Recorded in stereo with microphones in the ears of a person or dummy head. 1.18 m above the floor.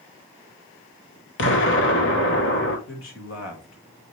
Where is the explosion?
65° left (ahead or behind), 1.1 m.